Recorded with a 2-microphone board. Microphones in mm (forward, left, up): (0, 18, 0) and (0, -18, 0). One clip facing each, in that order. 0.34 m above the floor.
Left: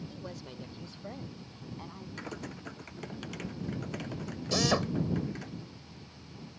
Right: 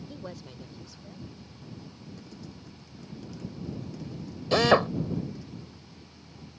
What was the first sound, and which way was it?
A woman speaking, 25° right (ahead or behind).